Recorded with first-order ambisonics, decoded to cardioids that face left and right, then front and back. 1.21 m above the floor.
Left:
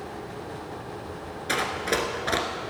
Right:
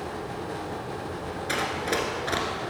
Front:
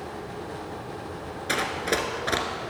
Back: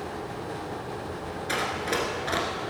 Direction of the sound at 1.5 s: 30° left.